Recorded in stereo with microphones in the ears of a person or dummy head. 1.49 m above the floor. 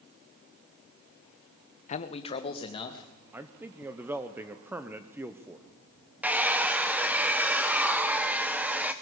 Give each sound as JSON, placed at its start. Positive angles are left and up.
{"t": 1.9, "sound": "a man speaking", "side_deg": 30, "distance_m": 0.7}
{"t": 3.3, "sound": "a man speaking", "side_deg": -15, "distance_m": 0.9}
{"t": 6.2, "sound": "a hair dryer", "side_deg": -15, "distance_m": 0.7}